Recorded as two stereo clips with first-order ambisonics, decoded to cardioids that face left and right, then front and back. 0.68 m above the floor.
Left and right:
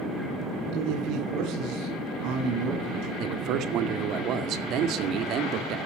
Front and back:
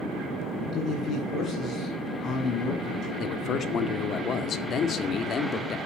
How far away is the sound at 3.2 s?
About 2 m.